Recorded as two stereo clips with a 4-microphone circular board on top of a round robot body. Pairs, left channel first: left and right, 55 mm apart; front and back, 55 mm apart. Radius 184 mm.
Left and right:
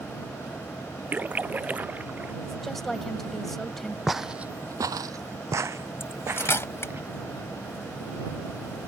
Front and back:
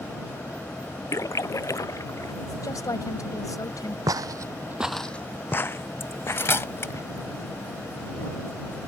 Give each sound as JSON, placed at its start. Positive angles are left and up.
{"t": 1.1, "sound": "a splash", "azimuth_deg": -30}
{"t": 2.4, "sound": "a woman speaking", "azimuth_deg": 5}
{"t": 4.1, "sound": "footsteps", "azimuth_deg": 180}
{"t": 6.0, "sound": "cutlery clinking", "azimuth_deg": 45}